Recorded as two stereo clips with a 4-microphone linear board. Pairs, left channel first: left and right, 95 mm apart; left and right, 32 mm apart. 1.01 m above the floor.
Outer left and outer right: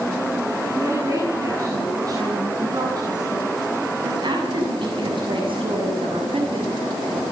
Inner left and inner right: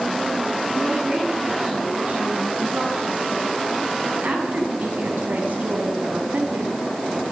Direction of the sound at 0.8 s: 35° right (ahead or behind).